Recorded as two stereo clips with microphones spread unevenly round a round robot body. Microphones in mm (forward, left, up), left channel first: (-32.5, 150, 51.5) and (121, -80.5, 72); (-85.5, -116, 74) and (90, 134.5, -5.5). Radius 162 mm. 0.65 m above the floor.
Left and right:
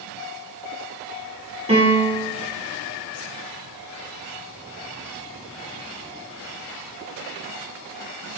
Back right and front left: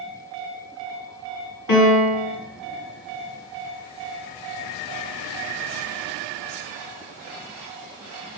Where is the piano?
120° right, 1.4 m.